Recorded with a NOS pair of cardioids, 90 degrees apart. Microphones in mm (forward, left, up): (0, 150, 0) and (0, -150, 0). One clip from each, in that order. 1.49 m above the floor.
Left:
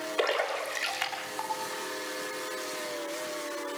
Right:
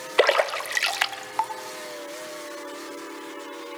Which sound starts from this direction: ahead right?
A splash, at 0.2 s.